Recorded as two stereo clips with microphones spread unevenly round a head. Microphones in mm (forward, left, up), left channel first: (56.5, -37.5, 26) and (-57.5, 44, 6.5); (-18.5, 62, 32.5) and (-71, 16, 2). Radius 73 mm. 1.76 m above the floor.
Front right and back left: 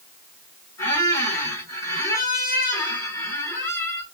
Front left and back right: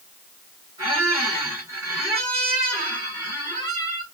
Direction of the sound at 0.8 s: 75° right.